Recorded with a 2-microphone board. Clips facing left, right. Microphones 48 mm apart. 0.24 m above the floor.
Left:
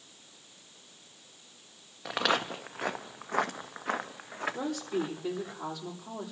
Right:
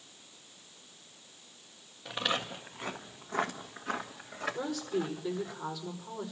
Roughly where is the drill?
No drill in this recording.